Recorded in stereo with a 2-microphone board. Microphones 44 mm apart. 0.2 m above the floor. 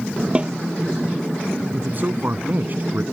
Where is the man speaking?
45° right (ahead or behind).